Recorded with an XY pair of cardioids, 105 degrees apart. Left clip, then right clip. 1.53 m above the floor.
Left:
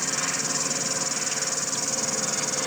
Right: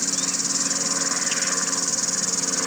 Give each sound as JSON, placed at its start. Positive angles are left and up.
{"t": 0.0, "sound": "an insect", "azimuth_deg": -25}